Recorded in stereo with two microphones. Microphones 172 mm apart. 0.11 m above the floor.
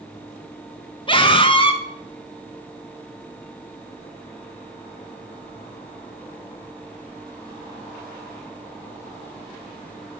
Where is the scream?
30° left (ahead or behind), 1.9 m.